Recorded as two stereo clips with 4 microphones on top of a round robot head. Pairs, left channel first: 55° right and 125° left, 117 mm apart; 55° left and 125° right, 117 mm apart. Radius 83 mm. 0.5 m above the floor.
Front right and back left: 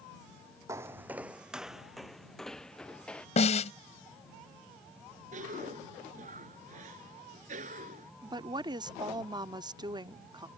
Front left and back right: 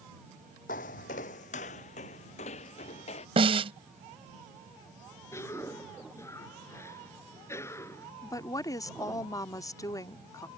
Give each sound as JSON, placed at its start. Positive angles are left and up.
{"t": 0.7, "sound": "footsteps", "azimuth_deg": 55}
{"t": 3.4, "sound": "a snare drum", "azimuth_deg": -85}
{"t": 5.3, "sound": "a cough", "azimuth_deg": 125}
{"t": 8.2, "sound": "a woman speaking", "azimuth_deg": 100}